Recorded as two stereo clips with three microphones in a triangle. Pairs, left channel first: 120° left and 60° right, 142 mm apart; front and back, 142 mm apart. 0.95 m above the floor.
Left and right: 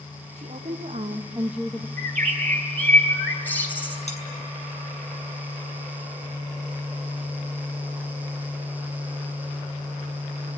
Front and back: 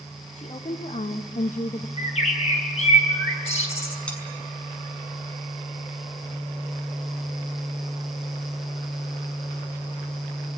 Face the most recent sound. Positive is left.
turn(degrees=85)